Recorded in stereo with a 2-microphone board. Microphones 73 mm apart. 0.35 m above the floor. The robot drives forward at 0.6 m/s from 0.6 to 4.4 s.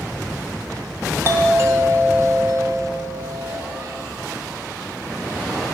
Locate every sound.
1.2 s a doorbell: 35° right (ahead or behind), 1.9 m; by 3.6 s 25° right (ahead or behind), 2.5 m